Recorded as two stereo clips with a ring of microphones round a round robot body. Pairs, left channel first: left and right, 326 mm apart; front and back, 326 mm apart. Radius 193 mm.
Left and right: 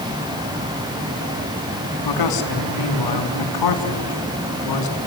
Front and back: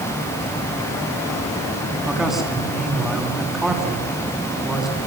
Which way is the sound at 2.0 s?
90° left.